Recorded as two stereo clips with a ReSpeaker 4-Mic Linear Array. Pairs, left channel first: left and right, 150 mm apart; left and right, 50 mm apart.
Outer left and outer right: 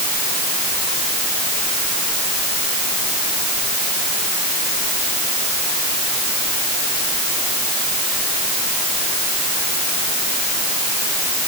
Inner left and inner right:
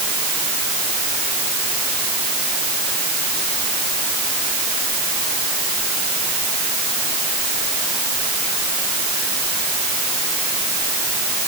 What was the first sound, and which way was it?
Only background noise.